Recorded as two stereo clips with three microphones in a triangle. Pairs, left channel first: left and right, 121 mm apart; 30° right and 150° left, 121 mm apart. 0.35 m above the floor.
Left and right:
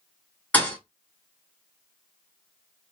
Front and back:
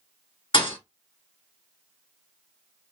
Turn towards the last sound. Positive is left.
turn(degrees=10)